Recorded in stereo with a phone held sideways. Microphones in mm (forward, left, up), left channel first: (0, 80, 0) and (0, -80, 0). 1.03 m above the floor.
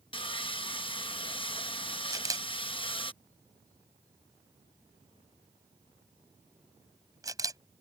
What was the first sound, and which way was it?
Sawing, 30° left (ahead or behind).